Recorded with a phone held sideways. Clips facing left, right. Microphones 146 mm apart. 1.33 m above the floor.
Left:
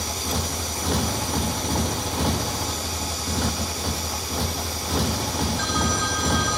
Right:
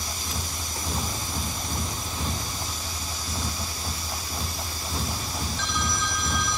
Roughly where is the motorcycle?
Left.